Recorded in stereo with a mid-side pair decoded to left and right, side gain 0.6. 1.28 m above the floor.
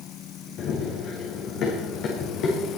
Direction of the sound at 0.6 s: 55° left.